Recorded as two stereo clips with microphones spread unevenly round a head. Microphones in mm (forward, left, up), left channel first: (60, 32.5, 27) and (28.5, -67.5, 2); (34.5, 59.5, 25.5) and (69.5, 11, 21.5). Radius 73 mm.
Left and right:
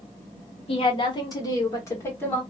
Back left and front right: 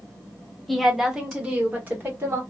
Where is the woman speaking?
40° left, 1.0 m; by 2.4 s straight ahead, 1.5 m.